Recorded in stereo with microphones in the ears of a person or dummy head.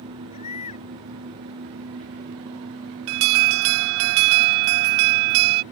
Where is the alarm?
65° right (ahead or behind).